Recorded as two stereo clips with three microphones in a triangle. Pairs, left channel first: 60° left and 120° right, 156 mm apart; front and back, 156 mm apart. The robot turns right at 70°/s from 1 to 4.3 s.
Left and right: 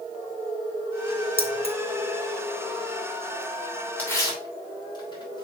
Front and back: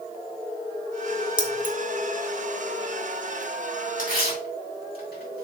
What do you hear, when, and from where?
1.4 s keys jangling: 125° right, 1.1 m; by 1.8 s 100° right, 1.1 m
4.0 s tearing paper: 20° right, 3 m; by 5.5 s straight ahead, 3 m